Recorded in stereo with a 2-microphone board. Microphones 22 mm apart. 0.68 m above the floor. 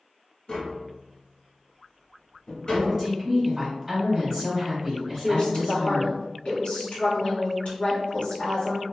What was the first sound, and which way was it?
Tapping, 40° left (ahead or behind).